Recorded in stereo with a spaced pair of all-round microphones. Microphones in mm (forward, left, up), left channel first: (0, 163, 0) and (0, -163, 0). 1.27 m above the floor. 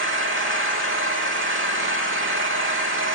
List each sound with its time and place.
0.0 s an engine running: 40° right (ahead or behind), 1.1 m